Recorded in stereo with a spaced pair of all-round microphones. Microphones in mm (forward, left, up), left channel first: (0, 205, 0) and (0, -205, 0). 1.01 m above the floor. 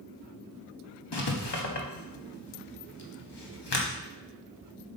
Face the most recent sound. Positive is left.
turn(degrees=75)  # may be behind; listen again after turning